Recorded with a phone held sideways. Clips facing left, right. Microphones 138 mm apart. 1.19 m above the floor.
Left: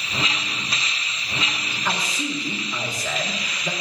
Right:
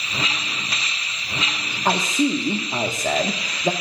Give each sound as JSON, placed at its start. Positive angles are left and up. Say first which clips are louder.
{"t": 1.9, "sound": "a man speaking", "louder": "right 8 dB", "side_deg": -45, "distance_m": 1.3}